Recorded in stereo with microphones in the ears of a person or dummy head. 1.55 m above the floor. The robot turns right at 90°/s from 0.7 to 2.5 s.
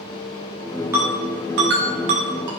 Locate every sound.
0.9 s a ringtone: 10° right (ahead or behind), 0.6 m; by 2.5 s 20° right (ahead or behind), 0.6 m